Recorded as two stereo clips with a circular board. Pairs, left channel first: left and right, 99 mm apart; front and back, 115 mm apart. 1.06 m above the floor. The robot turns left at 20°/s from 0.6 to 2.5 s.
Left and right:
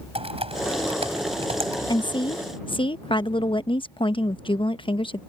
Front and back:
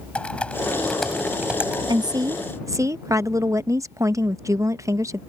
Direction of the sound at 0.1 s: 80° right.